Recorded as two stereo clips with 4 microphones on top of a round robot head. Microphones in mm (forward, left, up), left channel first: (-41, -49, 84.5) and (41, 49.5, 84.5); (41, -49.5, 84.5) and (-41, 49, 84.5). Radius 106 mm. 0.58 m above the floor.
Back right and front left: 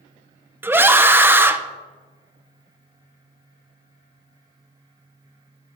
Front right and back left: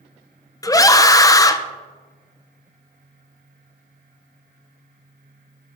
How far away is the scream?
About 0.6 m.